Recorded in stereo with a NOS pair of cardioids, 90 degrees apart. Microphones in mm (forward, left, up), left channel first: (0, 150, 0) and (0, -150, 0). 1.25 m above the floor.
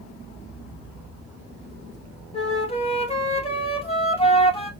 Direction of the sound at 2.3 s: 20° left.